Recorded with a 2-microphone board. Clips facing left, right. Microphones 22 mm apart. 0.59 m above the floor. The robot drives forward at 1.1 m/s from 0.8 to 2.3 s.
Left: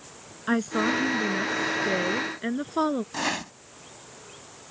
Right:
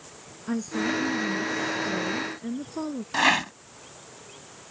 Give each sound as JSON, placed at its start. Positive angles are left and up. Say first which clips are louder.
{"t": 0.5, "sound": "a woman speaking", "louder": "left 3 dB", "side_deg": 75}
{"t": 3.1, "sound": "a rattle", "louder": "right 7 dB", "side_deg": -35}